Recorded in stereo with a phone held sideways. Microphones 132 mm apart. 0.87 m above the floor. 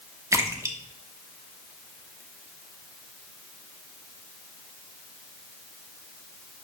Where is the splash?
25° right (ahead or behind), 0.8 m.